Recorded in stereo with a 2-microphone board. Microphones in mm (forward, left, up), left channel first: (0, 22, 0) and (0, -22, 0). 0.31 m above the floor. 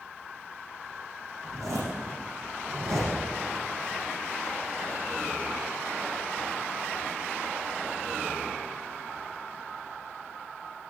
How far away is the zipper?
About 7 m.